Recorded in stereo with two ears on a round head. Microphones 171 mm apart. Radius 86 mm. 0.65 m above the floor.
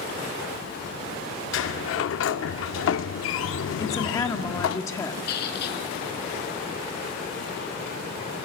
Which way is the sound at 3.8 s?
15° left (ahead or behind).